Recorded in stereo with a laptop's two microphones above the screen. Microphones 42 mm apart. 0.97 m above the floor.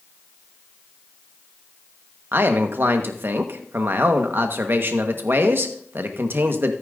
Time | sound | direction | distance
2.3 | a man speaking | 60° right (ahead or behind) | 1.2 m